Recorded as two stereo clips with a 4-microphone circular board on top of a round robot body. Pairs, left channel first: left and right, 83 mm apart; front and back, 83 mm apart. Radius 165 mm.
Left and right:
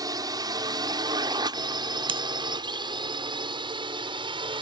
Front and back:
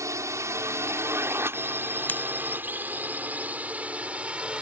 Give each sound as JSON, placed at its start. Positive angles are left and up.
{"t": 0.0, "sound": "a drone", "azimuth_deg": -130}
{"t": 2.1, "sound": "scissors", "azimuth_deg": -70}